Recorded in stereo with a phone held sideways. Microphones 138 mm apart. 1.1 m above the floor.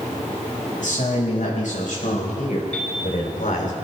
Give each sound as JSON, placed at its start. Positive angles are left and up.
{"t": 0.8, "sound": "a man speaking", "side_deg": 75, "distance_m": 6.0}
{"t": 2.7, "sound": "a piano", "side_deg": 10, "distance_m": 6.5}